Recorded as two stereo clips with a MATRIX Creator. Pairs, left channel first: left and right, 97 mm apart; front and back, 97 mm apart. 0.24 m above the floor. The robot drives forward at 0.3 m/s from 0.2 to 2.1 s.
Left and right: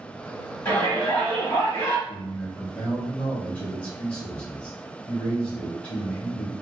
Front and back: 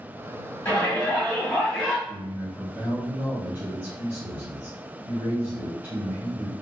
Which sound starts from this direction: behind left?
A man speaking, at 2.1 s.